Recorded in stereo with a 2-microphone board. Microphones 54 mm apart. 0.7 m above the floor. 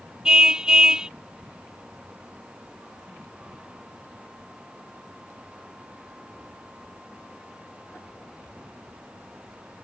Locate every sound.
0.2 s a car horn: 15° right (ahead or behind)